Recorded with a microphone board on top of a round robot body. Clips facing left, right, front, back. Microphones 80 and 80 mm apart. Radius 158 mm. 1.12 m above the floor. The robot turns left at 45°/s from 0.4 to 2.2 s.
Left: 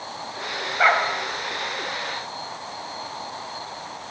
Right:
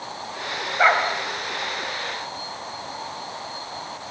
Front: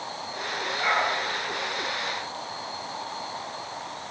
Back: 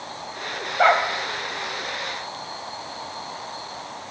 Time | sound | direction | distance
0.8 | a dog barking | 170° right | 3.5 m